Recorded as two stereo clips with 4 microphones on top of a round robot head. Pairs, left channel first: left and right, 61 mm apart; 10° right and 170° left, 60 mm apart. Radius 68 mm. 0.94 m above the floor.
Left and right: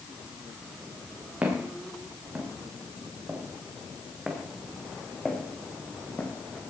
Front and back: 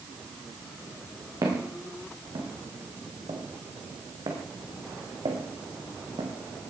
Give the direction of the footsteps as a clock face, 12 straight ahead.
5 o'clock.